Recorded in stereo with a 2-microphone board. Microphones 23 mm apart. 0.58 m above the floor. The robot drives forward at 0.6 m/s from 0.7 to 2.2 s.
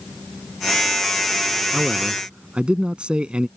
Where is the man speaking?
45° right (ahead or behind).